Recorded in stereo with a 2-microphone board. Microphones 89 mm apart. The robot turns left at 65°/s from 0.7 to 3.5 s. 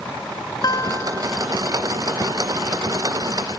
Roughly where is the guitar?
Ahead left.